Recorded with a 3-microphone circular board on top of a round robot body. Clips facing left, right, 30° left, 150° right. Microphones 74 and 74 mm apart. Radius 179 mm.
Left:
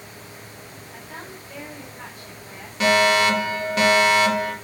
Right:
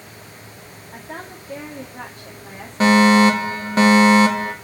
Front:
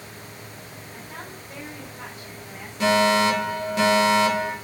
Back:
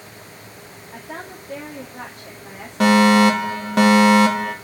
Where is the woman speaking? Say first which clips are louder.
Right 5 dB, back 6 dB; 120° right, 2.5 m.